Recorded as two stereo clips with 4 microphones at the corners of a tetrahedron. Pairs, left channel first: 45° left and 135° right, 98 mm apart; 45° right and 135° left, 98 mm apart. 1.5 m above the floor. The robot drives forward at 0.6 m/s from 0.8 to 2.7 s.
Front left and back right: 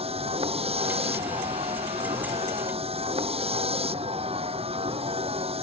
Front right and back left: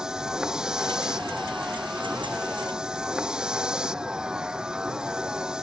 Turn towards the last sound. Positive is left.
turn(degrees=-145)